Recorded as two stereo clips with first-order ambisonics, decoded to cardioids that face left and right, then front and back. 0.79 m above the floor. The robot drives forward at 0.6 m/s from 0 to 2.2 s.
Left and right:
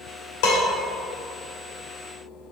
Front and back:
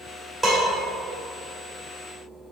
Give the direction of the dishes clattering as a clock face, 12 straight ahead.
9 o'clock.